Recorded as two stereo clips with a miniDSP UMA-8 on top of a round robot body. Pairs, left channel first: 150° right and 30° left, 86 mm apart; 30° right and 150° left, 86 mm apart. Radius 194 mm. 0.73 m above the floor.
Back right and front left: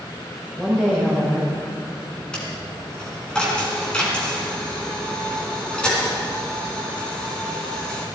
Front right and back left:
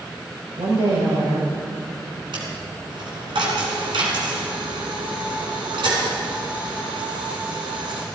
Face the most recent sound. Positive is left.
turn(degrees=130)